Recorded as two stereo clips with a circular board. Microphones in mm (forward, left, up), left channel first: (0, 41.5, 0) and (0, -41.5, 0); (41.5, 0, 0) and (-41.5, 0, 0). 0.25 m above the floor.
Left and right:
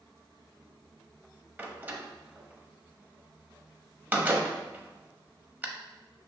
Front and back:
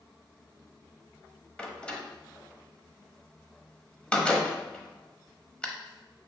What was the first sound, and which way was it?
A door slam, 60° right.